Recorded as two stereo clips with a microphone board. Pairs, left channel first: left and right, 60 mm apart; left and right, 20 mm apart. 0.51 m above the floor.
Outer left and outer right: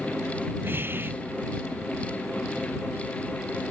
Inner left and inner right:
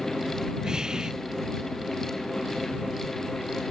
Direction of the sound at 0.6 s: 35° right (ahead or behind).